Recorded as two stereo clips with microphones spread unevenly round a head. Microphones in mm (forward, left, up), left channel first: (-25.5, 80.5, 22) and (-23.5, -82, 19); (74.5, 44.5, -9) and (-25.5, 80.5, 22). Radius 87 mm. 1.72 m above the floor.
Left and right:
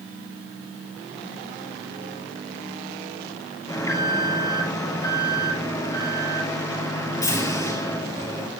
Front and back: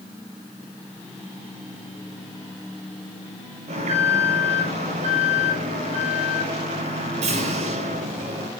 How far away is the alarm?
About 5 m.